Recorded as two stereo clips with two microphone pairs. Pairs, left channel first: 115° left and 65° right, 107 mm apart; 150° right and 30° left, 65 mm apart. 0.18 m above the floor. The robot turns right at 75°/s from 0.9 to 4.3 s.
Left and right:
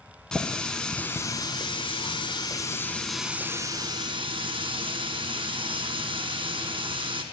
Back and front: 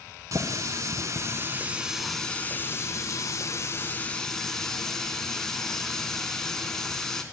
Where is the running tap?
35° left, 1.2 m; by 7.2 s 70° right, 1.2 m.